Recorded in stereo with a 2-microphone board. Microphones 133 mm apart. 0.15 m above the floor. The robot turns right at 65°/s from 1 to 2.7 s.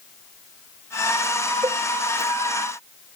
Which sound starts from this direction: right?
A cowbell, at 1.6 s.